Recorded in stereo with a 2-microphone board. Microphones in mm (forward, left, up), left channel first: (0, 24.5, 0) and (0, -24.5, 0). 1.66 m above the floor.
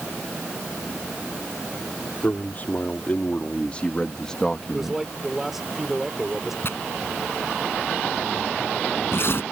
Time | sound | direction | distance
2.2 | a man speaking | 40° left (ahead or behind) | ?
4.7 | a man speaking | 5° right (ahead or behind) | ?
6.6 | tearing paper | 50° left (ahead or behind) | ?